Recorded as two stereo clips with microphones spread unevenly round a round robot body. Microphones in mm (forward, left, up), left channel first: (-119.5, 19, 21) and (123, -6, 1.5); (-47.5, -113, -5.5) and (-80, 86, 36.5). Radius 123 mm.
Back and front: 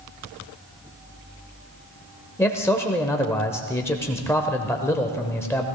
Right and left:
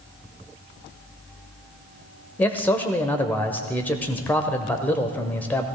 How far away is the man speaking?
About 1.0 m.